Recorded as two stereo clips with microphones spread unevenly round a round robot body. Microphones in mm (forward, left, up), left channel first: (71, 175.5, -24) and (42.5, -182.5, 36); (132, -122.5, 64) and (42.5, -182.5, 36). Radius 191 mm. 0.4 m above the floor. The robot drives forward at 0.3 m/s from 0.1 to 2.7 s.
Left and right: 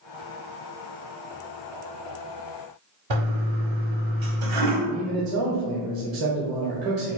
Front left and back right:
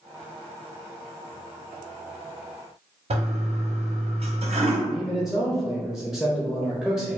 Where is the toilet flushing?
135° right, 1.2 m.